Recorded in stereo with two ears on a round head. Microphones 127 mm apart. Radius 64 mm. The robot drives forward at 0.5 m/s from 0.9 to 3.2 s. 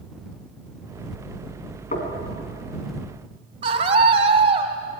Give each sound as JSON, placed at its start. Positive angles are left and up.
{"t": 1.9, "sound": "knocking", "side_deg": 55, "distance_m": 3.5}
{"t": 3.6, "sound": "a scream", "side_deg": -40, "distance_m": 2.5}